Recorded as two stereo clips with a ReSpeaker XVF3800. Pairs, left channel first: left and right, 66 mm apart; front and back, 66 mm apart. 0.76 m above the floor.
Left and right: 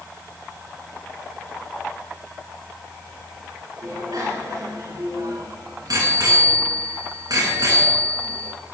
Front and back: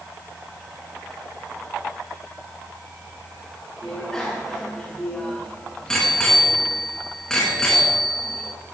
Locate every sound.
3.8 s a bicycle bell: 80° right, 6 m